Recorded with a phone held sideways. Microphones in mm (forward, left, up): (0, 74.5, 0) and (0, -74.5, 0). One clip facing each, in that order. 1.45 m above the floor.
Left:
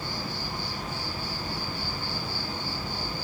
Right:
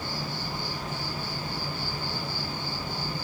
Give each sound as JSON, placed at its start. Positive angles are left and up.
{"t": 0.0, "sound": "an insect", "side_deg": -50, "distance_m": 1.8}